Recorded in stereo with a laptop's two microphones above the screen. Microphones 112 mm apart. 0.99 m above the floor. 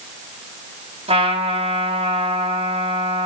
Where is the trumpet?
70° right (ahead or behind), 5 m.